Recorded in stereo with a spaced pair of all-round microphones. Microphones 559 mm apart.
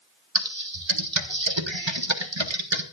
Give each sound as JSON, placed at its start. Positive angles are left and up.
{"t": 0.3, "sound": "typing on a keyboard", "side_deg": -50, "distance_m": 1.3}